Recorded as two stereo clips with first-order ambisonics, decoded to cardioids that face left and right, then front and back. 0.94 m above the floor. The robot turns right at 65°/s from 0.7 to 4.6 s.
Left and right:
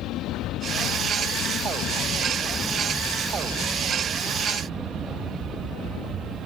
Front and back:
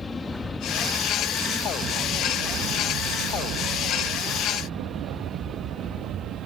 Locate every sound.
0.0 s an aircraft: 65° left; by 6.5 s 135° right